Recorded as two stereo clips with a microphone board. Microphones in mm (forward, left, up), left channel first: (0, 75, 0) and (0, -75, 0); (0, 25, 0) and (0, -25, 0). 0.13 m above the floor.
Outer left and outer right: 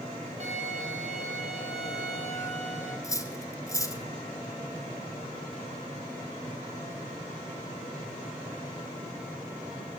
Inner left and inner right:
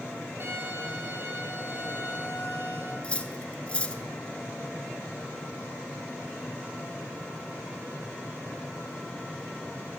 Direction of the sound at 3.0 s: 20° left (ahead or behind).